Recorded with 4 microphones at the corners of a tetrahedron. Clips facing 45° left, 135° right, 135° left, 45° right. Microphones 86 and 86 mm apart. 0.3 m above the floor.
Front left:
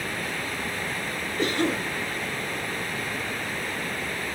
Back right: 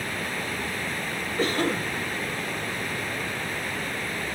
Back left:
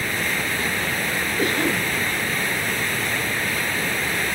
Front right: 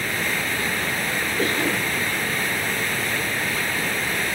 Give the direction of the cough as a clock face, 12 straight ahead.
5 o'clock.